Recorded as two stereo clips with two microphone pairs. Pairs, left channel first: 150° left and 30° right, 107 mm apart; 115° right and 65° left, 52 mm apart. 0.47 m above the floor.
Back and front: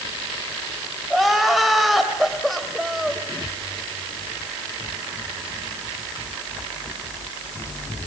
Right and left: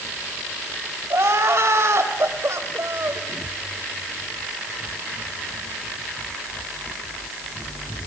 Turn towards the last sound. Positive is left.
turn(degrees=60)